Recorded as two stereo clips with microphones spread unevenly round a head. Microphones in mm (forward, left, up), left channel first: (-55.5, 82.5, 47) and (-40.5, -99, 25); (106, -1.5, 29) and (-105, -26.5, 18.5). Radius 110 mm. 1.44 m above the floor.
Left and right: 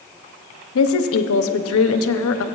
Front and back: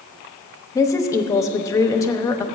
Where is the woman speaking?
85° left, 0.6 m.